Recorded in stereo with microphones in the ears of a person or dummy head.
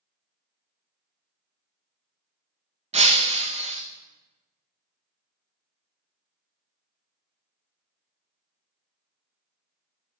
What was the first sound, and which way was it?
Breaking glass, 35° right (ahead or behind).